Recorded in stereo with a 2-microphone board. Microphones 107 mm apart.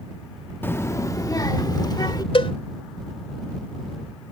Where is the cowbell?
55° left (ahead or behind).